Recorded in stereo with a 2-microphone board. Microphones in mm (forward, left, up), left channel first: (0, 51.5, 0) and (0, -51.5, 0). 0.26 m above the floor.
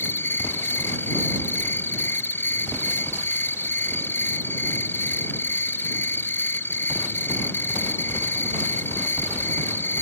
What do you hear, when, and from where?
0.0 s an insect: 20° left (ahead or behind)